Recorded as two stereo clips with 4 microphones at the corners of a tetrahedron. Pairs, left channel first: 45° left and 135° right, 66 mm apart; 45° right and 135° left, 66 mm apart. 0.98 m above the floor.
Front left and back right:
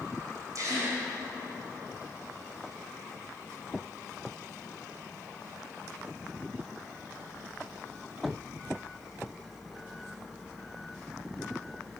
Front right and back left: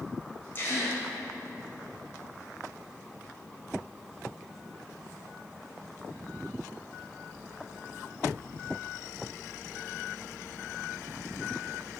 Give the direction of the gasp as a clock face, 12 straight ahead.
3 o'clock.